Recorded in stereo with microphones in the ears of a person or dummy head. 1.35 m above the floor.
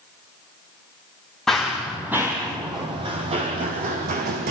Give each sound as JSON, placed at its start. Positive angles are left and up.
{"t": 1.5, "sound": "running footsteps", "side_deg": 5, "distance_m": 2.5}